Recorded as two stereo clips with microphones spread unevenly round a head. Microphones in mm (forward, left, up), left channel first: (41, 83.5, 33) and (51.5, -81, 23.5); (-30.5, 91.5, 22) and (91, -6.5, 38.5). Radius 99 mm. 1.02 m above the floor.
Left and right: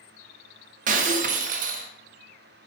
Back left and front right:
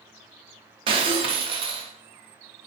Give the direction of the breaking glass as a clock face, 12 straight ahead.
3 o'clock.